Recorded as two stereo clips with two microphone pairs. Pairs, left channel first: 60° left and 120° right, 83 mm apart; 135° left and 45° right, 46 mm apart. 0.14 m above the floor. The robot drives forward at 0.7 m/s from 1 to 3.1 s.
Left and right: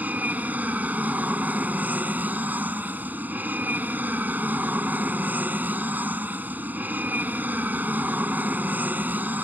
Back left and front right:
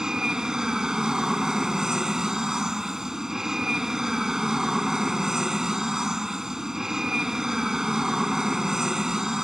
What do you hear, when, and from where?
0.0 s an aircraft: 95° right; by 9.4 s 105° right